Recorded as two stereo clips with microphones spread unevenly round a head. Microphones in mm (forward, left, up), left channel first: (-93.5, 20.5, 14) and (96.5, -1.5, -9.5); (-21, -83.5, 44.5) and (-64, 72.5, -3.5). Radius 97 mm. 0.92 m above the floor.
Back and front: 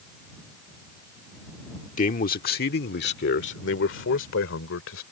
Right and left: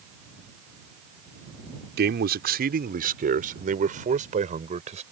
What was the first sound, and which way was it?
A man speaking, 120° left.